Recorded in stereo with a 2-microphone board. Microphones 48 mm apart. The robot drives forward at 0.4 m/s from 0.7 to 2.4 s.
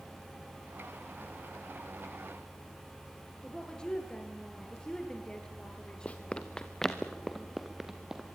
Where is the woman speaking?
20° left (ahead or behind), 5.5 m.